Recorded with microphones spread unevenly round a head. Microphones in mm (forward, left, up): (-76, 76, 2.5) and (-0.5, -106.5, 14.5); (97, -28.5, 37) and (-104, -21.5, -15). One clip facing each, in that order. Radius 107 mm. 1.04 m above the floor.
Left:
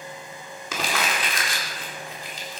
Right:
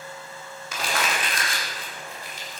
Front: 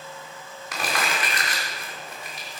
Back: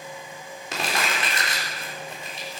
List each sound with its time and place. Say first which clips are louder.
0.7 s crumpling: left 1 dB, even; 115° left, 3.5 m